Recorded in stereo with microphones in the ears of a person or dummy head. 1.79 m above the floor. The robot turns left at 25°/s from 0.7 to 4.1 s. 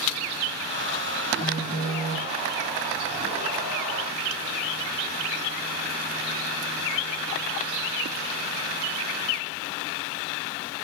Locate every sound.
1.4 s a phone buzzing: 40° right (ahead or behind), 1.2 m; by 2.3 s 25° right (ahead or behind), 1.2 m